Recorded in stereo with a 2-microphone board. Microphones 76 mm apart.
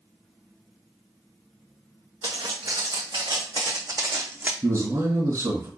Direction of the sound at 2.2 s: 75° right (ahead or behind).